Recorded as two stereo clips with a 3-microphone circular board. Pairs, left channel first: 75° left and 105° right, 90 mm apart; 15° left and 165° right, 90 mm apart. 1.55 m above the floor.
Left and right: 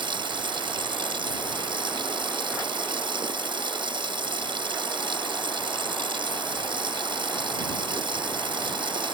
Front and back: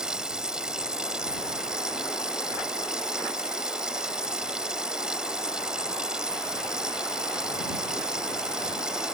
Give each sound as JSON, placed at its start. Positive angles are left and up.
{"t": 0.0, "sound": "running water", "azimuth_deg": -85}